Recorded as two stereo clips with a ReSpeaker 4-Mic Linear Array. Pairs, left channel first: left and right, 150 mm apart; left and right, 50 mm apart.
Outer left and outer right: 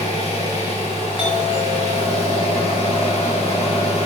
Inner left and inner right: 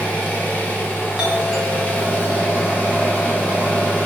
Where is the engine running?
45° left (ahead or behind), 1.5 m.